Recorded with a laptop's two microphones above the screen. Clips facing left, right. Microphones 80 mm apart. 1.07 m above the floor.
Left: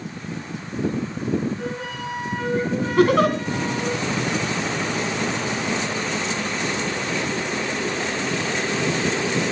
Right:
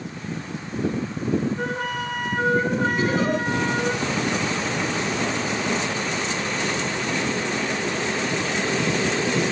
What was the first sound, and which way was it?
A flute, 60° right (ahead or behind).